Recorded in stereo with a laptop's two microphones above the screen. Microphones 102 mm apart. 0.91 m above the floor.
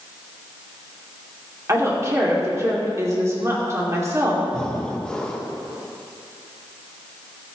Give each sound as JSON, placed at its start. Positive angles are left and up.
{"t": 1.7, "sound": "a woman speaking", "side_deg": -35, "distance_m": 2.0}
{"t": 4.5, "sound": "breathing", "side_deg": 10, "distance_m": 0.9}